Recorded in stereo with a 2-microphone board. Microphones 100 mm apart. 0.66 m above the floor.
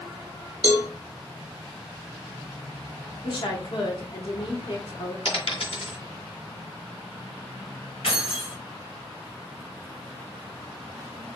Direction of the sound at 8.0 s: 75° left (ahead or behind).